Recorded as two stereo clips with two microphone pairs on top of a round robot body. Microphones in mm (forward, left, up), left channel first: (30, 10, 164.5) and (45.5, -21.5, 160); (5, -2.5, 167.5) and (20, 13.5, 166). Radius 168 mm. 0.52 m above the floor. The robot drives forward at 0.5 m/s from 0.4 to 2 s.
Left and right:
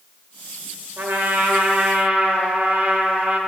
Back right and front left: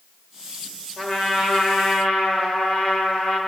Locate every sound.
1.0 s a trumpet: 65° right, 1.7 m; by 3.4 s 85° right, 1.6 m